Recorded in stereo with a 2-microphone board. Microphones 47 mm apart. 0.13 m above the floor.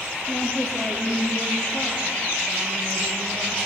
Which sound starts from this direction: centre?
A woman speaking, at 0.3 s.